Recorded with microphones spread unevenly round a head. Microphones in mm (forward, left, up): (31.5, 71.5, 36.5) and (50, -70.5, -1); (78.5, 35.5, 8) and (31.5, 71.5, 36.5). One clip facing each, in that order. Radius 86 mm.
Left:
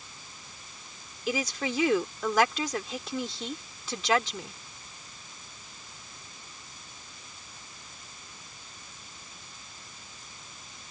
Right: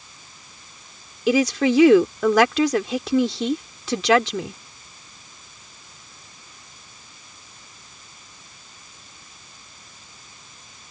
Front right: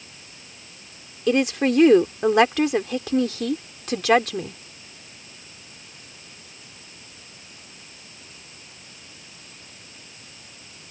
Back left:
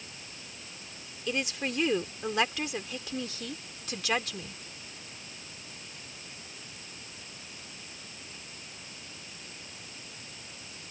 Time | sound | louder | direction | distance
1.3 | a woman speaking | right 13 dB, front right 13 dB | 70° right | ?